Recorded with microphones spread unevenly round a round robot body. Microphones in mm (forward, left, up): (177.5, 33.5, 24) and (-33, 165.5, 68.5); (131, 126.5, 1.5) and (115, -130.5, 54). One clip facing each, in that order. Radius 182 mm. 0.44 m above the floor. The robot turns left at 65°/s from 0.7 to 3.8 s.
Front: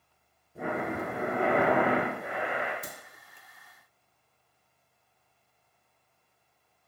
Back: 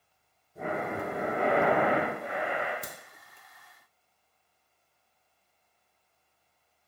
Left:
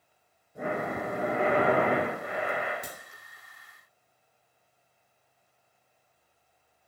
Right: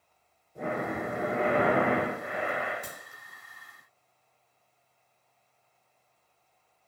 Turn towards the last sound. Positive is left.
turn(degrees=60)